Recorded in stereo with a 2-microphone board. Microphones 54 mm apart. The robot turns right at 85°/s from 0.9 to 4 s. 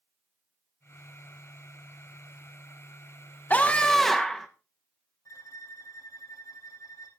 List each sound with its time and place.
3.5 s a scream: 130° left, 0.7 m; by 4.5 s 170° left, 0.7 m
5.2 s a violin: 85° left, 3 m